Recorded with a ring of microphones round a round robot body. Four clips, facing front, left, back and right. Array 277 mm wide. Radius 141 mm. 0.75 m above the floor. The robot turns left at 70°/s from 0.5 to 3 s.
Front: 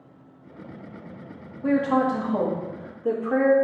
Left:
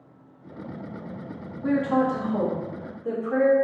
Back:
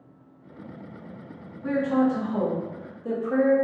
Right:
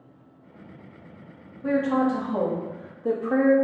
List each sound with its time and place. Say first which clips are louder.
1.6 s a woman speaking: even, front 1 dB; 25° left, 1.1 m; by 3.5 s 70° right, 1.1 m